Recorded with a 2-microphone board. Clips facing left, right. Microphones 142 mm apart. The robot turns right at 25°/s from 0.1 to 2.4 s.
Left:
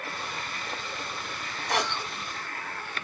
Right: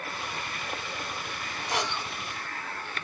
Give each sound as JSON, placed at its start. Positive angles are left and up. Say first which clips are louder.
{"t": 1.7, "sound": "a cough", "louder": "left 2 dB", "side_deg": 70, "distance_m": 1.6}